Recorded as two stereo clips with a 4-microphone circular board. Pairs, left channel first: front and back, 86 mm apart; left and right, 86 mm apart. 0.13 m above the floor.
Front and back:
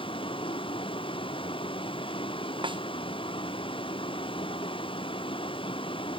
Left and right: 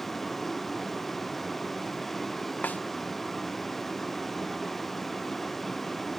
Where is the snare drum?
160° left.